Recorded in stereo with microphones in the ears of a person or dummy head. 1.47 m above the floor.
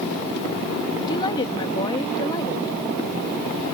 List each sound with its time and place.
1.1 s a woman speaking: 15° left (ahead or behind)